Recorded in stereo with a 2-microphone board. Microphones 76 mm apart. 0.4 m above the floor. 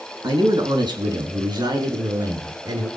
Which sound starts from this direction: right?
A man speaking, at 0.2 s.